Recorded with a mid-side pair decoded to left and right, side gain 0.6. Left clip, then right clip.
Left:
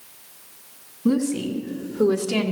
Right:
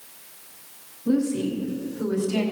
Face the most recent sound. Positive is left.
turn(degrees=70)